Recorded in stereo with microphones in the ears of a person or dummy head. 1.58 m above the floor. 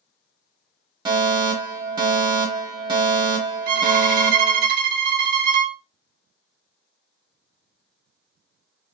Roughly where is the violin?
Right.